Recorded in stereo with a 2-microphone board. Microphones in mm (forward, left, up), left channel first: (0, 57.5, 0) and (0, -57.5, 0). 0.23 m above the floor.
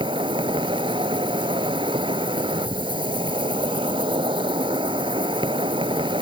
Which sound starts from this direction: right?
An insect, at 0.0 s.